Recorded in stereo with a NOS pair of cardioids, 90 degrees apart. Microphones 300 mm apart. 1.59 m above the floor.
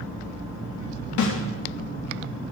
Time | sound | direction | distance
1.2 | a snare drum | 65° left | 2.5 m